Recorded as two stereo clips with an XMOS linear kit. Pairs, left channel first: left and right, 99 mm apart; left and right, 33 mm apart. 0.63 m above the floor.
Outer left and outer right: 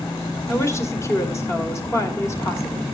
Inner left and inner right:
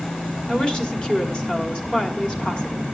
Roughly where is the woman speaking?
Left.